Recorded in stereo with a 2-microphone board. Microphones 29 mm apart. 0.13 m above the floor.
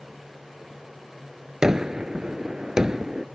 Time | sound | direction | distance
1.6 | a gunshot | 20° right (ahead or behind) | ?